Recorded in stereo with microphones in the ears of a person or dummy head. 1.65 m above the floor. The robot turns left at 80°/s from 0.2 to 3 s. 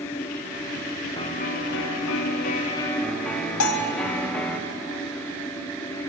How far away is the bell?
About 1.4 m.